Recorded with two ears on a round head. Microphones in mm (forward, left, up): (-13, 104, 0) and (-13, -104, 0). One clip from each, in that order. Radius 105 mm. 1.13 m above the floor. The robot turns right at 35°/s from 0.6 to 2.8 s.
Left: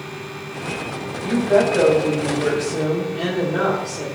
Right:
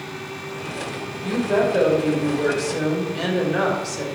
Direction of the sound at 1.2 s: 175° right.